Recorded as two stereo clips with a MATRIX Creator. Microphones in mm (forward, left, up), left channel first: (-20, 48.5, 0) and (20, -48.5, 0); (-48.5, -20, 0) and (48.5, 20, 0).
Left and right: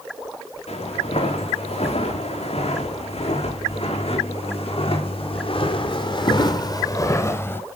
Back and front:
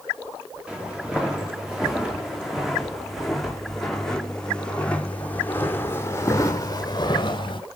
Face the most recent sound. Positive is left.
turn(degrees=180)